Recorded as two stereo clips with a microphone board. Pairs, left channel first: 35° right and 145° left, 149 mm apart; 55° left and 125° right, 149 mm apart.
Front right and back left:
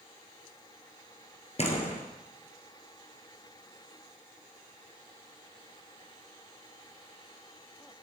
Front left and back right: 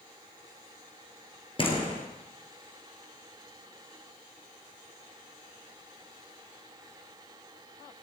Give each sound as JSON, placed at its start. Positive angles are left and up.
{"t": 1.6, "sound": "a door slam", "azimuth_deg": 5, "distance_m": 2.5}